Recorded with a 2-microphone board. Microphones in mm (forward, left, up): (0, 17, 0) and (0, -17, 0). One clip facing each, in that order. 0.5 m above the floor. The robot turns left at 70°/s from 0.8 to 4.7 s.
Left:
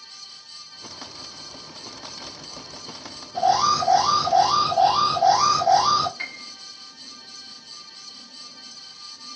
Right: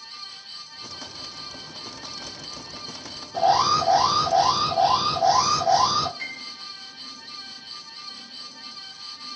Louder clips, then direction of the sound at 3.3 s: Even; 75° right.